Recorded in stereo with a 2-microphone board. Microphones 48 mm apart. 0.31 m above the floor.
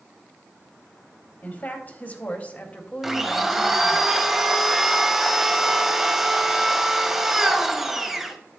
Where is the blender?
5° right (ahead or behind), 1.0 m.